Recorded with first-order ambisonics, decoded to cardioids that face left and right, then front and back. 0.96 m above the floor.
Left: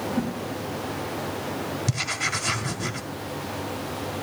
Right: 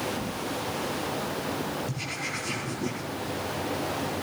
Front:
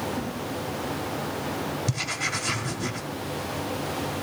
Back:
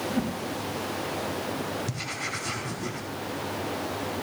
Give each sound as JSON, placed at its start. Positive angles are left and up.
{"t": 0.1, "sound": "a whoosh", "azimuth_deg": 130, "distance_m": 1.9}
{"t": 1.9, "sound": "writing", "azimuth_deg": 65, "distance_m": 1.4}